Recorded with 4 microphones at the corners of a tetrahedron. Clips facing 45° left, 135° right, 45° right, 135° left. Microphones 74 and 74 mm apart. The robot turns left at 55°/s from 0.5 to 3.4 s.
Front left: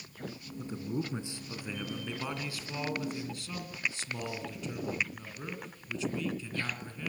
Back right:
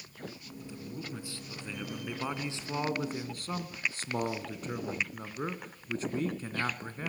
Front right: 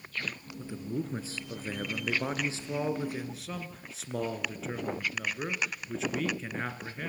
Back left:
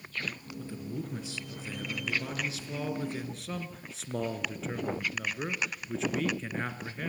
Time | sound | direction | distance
0.6 | a man speaking | 25° left | 2 m